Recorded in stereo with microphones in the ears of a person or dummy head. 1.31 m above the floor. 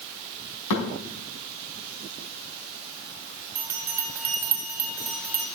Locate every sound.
0.7 s a thud: 80° left, 4.5 m
3.5 s a bell: 10° right (ahead or behind), 1.6 m